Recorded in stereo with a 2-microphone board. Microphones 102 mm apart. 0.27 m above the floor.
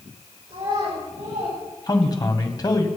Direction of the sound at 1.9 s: 35° left (ahead or behind).